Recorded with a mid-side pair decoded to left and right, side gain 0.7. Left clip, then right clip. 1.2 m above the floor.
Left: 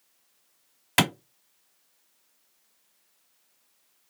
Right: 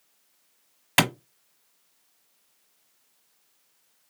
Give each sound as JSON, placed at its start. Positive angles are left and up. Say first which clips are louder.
{"t": 1.0, "sound": "a clap", "louder": "right 1 dB", "azimuth_deg": -5, "distance_m": 1.2}